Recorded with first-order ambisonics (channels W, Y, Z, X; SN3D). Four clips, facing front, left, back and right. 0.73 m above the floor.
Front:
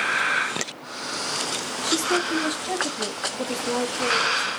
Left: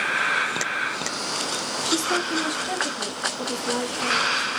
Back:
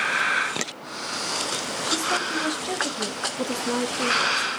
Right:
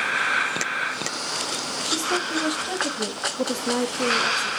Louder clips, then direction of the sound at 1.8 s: Left 1 dB, front 2 dB; 65° left.